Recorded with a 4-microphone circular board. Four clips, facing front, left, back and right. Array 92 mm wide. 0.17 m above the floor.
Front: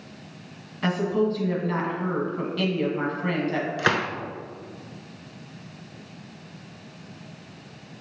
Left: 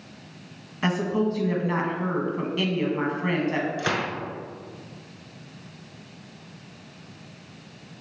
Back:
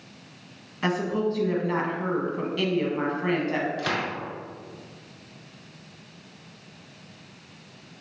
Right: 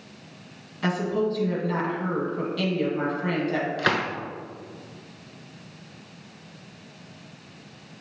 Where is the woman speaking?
110° left, 1.0 m.